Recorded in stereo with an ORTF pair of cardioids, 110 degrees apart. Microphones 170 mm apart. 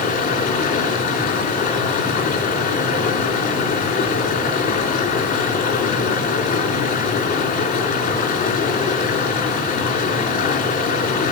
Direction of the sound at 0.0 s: 65° left.